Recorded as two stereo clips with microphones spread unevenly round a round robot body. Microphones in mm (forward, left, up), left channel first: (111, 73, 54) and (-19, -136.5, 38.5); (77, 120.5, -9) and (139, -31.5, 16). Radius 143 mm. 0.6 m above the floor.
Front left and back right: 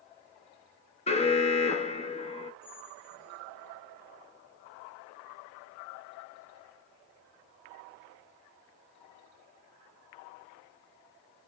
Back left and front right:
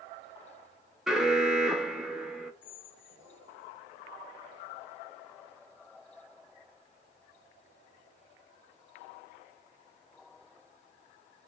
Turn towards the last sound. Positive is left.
turn(degrees=150)